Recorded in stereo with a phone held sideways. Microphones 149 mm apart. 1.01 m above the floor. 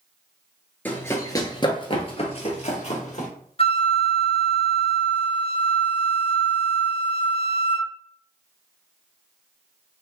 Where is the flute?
40° left (ahead or behind), 0.6 m.